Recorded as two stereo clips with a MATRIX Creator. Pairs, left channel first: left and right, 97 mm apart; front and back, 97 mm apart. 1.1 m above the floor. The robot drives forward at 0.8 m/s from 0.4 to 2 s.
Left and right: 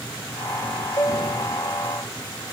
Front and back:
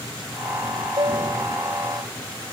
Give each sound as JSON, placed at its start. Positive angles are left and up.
{"t": 1.0, "sound": "a piano", "azimuth_deg": 145}